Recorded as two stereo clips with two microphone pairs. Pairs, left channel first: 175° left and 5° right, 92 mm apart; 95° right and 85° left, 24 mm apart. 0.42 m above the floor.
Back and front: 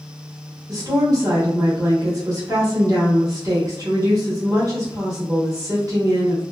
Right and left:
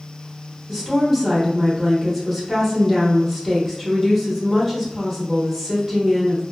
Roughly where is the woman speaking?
Ahead.